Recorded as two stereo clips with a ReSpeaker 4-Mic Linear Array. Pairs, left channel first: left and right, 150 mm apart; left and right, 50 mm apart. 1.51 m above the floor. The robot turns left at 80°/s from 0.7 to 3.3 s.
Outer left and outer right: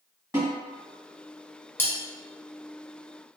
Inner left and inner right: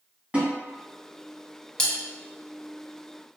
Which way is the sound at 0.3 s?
20° right (ahead or behind).